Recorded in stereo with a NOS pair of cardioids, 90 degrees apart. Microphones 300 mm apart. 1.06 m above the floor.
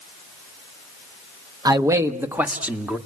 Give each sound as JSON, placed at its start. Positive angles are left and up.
{"t": 1.6, "sound": "a man speaking", "azimuth_deg": -10, "distance_m": 1.2}